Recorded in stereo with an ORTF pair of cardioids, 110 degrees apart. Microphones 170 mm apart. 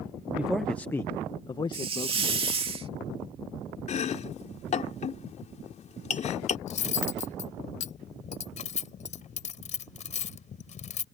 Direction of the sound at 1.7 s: 35° right.